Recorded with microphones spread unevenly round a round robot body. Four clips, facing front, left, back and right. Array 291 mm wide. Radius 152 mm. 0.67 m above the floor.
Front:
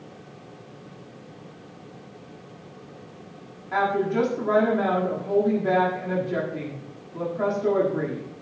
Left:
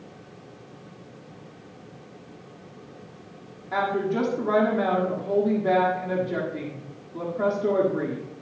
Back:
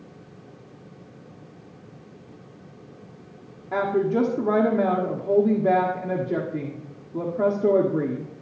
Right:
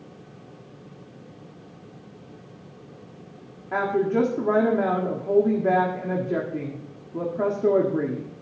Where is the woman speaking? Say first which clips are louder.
Right 2 dB, back 1 dB; 145° right, 1.5 m.